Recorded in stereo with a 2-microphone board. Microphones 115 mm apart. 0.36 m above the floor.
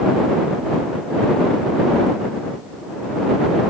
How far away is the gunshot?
No gunshot in this recording.